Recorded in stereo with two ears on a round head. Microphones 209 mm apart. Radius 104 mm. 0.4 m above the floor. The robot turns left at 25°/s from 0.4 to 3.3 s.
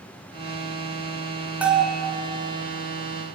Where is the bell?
5° right (ahead or behind), 4 m; by 2.0 s 5° left (ahead or behind), 4 m.